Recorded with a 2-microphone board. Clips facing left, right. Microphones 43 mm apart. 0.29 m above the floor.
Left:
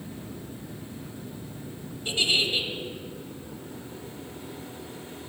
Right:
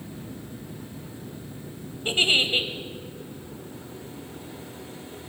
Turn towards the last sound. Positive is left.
turn(degrees=-35)  # may be behind; listen again after turning